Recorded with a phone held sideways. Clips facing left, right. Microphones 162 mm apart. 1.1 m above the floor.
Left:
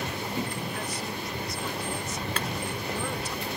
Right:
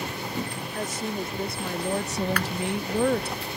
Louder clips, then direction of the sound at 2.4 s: Right 3 dB; 25° left (ahead or behind).